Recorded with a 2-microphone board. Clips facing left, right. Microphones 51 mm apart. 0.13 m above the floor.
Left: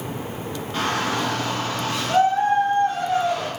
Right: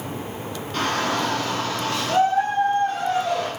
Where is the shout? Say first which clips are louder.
Right 1 dB; 15° left (ahead or behind), 1.5 m.